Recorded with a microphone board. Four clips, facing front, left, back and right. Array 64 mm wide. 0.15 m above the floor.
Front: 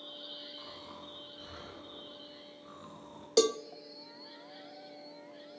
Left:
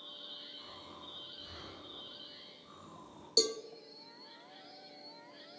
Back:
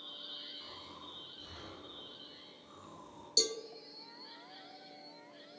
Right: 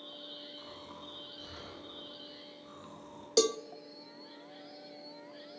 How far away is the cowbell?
About 0.8 m.